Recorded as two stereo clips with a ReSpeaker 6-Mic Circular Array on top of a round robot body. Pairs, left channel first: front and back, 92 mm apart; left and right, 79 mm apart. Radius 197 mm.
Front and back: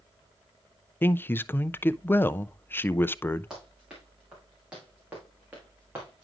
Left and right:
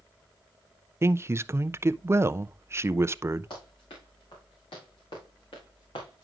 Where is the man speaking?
55° right, 0.5 m.